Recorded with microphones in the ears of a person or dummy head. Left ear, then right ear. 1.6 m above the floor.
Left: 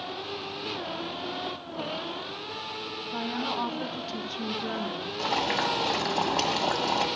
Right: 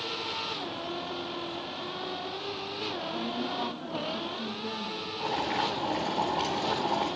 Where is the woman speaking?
70° left (ahead or behind), 1.3 m.